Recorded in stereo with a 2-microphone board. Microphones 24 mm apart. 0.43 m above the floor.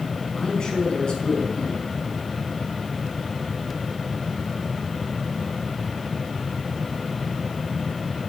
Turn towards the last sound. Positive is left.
turn(degrees=40)  # may be behind; listen again after turning